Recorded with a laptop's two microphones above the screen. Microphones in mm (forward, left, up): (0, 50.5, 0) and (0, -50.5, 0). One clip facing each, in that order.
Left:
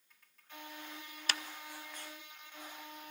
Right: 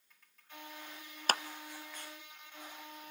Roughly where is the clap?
Right.